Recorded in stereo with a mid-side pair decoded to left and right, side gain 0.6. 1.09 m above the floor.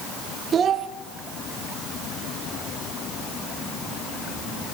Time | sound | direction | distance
0.5 | a child speaking | 40° right | 1.2 m